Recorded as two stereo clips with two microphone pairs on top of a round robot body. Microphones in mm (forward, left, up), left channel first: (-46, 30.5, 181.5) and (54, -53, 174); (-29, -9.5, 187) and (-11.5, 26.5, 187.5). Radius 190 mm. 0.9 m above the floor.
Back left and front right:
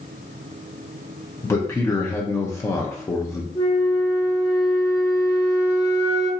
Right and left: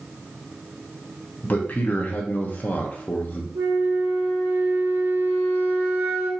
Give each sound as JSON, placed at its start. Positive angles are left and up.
{"t": 1.4, "sound": "a man speaking", "azimuth_deg": -150, "distance_m": 0.7}
{"t": 3.5, "sound": "a flute", "azimuth_deg": 75, "distance_m": 0.6}